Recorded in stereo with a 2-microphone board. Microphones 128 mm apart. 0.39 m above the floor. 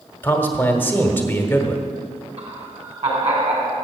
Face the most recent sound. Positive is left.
turn(degrees=-55)  # may be behind; listen again after turning